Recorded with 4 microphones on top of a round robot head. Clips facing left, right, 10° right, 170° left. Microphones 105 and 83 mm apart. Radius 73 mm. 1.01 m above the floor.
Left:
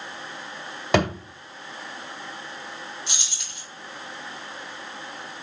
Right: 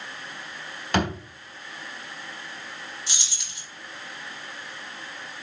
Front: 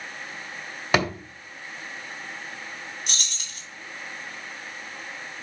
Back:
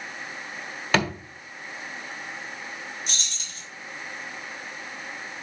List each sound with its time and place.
0.9 s a thud: 65° left, 2.0 m
3.1 s keys jangling: 20° left, 3 m